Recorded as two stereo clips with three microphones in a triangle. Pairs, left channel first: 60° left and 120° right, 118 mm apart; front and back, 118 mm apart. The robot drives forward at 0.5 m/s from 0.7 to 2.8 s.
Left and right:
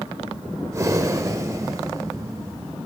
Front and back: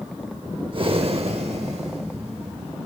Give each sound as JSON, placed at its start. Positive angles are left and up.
{"t": 0.7, "sound": "breathing", "azimuth_deg": -170, "distance_m": 0.6}